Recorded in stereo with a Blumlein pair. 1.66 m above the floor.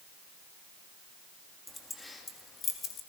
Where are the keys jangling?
5° left, 2.5 m; by 3.0 s 30° left, 1.5 m.